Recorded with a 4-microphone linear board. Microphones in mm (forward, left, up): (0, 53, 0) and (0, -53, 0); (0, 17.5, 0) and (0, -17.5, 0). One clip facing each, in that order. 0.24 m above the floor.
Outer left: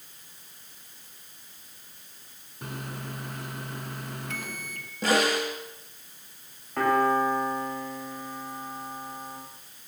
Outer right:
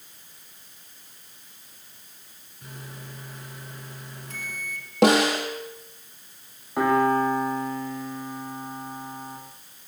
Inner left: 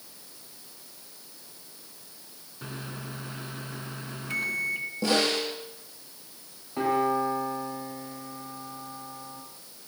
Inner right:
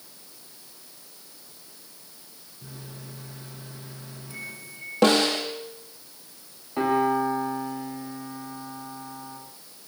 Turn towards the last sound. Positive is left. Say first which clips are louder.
# outer right 2 dB, inner right 2 dB
turn(degrees=-15)  # may be behind; listen again after turning